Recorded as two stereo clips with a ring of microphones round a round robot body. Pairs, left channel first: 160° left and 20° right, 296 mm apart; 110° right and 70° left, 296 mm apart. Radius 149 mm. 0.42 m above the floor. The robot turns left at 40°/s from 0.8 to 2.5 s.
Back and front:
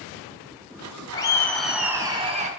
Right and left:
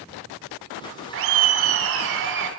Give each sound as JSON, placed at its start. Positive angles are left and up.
{"t": 1.1, "sound": "laughter", "azimuth_deg": 90, "distance_m": 1.1}